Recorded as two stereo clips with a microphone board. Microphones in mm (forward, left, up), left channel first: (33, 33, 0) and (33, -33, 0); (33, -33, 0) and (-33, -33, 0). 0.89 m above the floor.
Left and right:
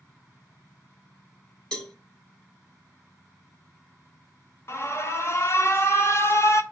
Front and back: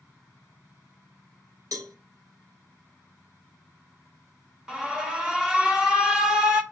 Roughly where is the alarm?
Left.